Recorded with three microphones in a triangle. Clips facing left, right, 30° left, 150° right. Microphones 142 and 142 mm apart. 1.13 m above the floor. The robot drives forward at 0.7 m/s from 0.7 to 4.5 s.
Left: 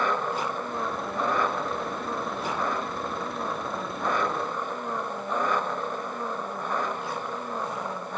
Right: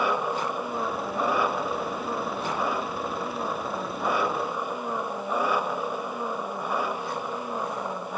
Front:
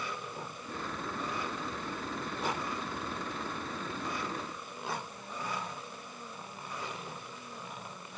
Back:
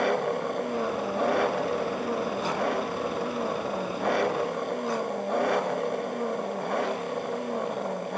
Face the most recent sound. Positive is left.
turn(degrees=-170)